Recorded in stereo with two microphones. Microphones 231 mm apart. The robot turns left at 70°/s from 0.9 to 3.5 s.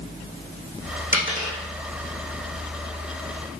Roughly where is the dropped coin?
Right.